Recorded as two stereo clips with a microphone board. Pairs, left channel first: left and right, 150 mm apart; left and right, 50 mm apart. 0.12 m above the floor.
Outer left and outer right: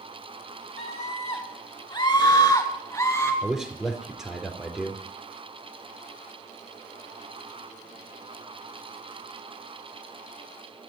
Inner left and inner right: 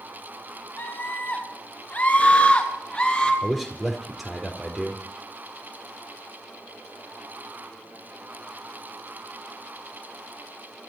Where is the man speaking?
5° right (ahead or behind), 4 m.